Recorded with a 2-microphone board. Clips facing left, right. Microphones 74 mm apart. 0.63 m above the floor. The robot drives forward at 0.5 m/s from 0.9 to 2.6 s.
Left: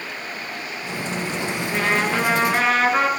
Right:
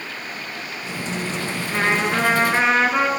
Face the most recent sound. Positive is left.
turn(degrees=-25)  # may be behind; listen again after turning